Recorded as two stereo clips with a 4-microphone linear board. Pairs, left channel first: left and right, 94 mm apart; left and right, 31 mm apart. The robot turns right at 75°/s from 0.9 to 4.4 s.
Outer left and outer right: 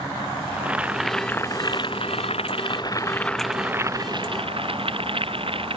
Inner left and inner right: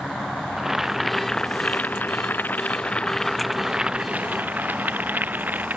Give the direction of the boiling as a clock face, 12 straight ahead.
12 o'clock.